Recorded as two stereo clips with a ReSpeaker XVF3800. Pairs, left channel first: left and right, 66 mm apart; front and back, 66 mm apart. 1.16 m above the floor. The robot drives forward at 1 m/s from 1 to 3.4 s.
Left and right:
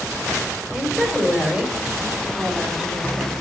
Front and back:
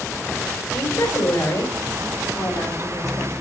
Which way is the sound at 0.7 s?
10° right.